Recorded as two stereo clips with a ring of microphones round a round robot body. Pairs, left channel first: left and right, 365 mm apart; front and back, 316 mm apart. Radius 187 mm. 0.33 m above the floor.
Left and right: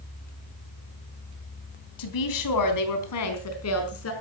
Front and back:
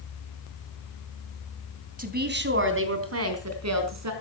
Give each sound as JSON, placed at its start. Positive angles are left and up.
{"t": 2.0, "sound": "a woman speaking", "azimuth_deg": 115, "distance_m": 3.0}